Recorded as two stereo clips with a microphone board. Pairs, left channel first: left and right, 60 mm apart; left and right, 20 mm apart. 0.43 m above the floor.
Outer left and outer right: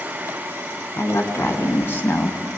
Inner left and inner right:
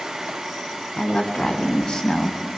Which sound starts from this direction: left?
A woman speaking, at 1.0 s.